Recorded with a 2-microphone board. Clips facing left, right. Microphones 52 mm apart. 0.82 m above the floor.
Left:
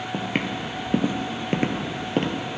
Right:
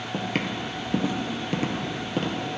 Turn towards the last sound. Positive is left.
turn(degrees=40)  # may be behind; listen again after turning